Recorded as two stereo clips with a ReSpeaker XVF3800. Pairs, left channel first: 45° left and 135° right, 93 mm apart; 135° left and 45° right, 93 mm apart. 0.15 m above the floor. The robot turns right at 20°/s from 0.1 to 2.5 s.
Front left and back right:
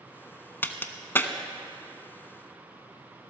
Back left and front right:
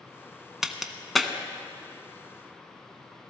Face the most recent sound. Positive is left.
turn(degrees=70)